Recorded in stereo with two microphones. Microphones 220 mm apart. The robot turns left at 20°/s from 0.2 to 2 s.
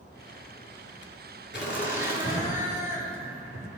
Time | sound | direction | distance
1.5 | laughter | 45° left (ahead or behind) | 3.5 m